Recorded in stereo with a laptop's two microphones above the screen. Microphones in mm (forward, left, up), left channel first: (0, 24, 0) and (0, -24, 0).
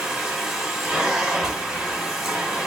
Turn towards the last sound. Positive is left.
turn(degrees=0)  # may be behind; listen again after turning